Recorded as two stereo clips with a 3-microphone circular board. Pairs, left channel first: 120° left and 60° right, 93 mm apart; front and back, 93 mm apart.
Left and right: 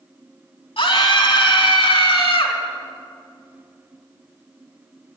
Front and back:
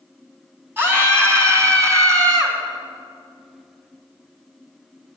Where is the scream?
115° left, 2.5 m; by 2.6 s 130° left, 3.5 m.